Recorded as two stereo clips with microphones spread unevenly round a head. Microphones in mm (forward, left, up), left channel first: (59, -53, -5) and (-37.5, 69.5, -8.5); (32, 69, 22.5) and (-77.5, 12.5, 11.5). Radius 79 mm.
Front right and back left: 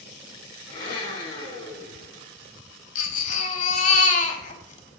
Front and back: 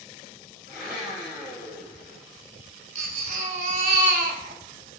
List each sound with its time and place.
0.7 s a blender: 10° left, 3 m
3.0 s a baby crying: 100° right, 0.7 m